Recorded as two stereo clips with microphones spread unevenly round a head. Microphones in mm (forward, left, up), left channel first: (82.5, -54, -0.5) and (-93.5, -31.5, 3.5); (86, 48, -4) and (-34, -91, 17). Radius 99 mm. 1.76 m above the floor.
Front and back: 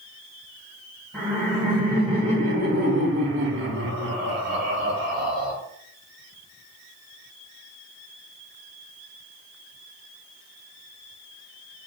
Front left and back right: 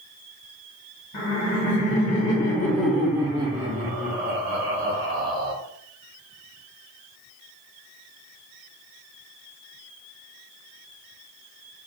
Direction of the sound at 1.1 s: 90° left.